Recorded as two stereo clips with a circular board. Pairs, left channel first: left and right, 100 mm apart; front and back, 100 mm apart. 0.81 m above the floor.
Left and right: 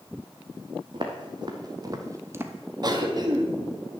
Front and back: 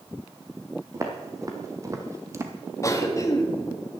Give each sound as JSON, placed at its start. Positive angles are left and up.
{"t": 0.9, "sound": "footsteps", "azimuth_deg": -125, "distance_m": 1.8}
{"t": 2.8, "sound": "a cough", "azimuth_deg": -50, "distance_m": 1.6}